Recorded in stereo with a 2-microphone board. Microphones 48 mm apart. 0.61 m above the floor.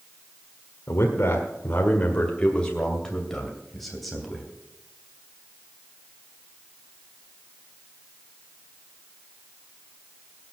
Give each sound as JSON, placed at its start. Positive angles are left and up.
{"t": 0.9, "sound": "a man speaking", "side_deg": 55, "distance_m": 1.6}